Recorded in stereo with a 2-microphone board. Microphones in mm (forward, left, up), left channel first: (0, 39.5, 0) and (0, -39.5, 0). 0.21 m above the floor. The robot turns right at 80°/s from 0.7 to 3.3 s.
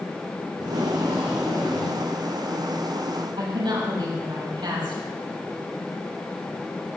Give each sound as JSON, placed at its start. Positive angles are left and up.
{"t": 0.6, "sound": "tape being pulled", "azimuth_deg": -60, "distance_m": 4.0}
{"t": 3.4, "sound": "a woman speaking", "side_deg": -65, "distance_m": 6.5}